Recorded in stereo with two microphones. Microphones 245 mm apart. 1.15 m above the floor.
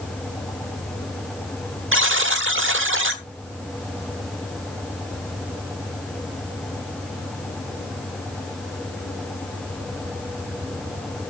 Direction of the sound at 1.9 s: 55° right (ahead or behind).